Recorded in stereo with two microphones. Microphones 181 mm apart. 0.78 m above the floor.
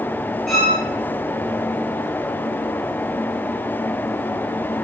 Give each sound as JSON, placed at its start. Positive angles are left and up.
{"t": 0.5, "sound": "a violin", "side_deg": 0, "distance_m": 5.5}